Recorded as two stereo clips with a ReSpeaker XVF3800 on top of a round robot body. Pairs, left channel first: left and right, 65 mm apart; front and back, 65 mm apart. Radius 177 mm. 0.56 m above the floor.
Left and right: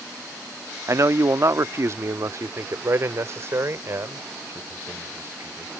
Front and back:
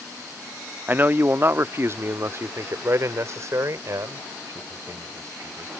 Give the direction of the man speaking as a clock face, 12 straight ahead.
4 o'clock.